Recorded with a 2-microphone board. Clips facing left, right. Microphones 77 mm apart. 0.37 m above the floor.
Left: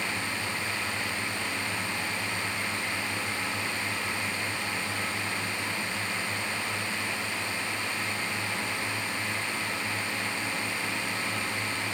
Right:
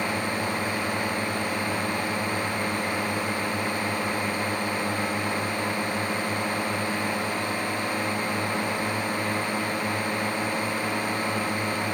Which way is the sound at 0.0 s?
45° right (ahead or behind).